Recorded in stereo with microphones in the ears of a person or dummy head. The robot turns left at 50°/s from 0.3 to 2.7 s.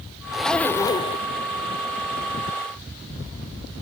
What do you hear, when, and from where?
0.3 s a zipper: 175° right; by 1.3 s 140° left